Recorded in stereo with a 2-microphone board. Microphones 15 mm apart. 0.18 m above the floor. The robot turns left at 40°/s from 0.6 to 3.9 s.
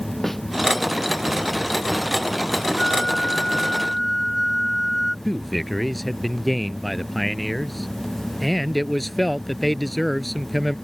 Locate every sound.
0.2 s a snare drum: 10° left (ahead or behind)
2.8 s a flute: 45° left; by 5.2 s straight ahead
5.2 s a man speaking: centre (ahead or behind)